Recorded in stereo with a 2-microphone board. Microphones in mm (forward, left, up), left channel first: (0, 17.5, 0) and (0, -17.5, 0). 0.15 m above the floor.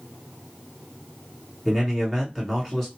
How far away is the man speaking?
About 1.6 m.